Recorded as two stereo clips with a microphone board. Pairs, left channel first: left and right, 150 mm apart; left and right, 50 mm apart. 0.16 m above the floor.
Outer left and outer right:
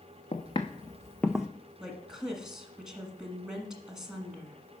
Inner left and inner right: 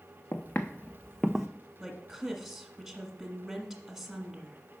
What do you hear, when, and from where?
0.3 s footsteps: 45° left (ahead or behind), 1.0 m; by 1.5 s 10° right (ahead or behind), 0.7 m
1.8 s a woman speaking: 5° right (ahead or behind), 1.5 m